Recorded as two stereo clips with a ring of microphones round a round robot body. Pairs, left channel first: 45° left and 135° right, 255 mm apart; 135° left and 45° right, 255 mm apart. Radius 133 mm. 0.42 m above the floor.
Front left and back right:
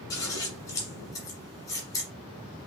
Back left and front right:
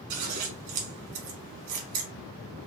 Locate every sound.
0.1 s scissors: 30° right, 1.6 m